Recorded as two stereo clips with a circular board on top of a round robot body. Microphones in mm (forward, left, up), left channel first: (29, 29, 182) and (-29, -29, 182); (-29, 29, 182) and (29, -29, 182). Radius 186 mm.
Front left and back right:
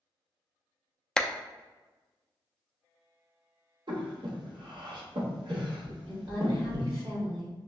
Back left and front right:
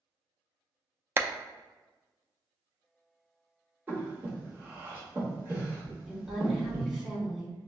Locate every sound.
1.2 s a clap: 30° right, 0.5 m
3.9 s breathing: 110° right, 1.0 m
6.1 s a woman speaking: 130° right, 1.9 m